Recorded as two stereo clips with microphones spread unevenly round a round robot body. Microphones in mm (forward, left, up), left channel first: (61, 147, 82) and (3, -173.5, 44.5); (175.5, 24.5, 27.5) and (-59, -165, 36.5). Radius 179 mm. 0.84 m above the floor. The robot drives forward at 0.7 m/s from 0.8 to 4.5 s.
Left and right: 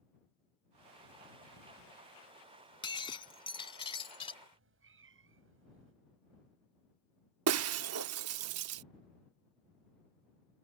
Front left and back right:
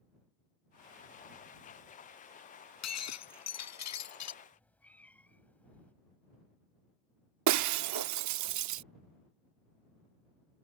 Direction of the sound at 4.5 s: 45° right.